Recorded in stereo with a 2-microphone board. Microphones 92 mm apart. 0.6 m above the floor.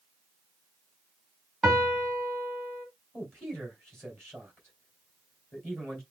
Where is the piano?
Centre (ahead or behind), 2 m.